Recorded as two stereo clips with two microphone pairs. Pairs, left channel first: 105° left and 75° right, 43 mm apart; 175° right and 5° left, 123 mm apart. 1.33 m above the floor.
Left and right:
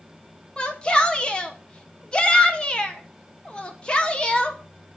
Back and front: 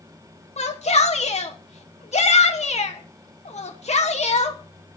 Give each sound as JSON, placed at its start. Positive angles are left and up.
{"t": 0.6, "sound": "a shout", "azimuth_deg": 170, "distance_m": 1.0}